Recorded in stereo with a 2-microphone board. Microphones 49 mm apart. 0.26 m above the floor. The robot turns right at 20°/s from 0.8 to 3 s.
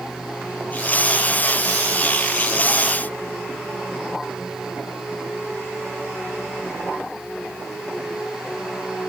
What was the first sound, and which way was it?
Only background noise.